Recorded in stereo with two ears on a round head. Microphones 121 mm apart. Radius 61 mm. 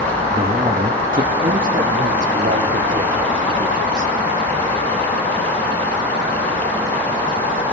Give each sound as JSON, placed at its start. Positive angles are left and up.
{"t": 0.3, "sound": "a man speaking", "side_deg": -30, "distance_m": 1.7}